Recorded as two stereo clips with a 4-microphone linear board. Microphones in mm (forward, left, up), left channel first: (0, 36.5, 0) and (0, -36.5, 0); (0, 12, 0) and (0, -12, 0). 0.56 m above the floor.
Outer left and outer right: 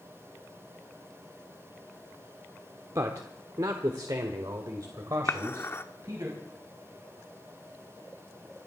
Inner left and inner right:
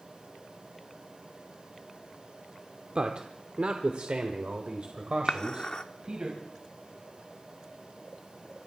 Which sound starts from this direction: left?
Dishes clattering, at 5.3 s.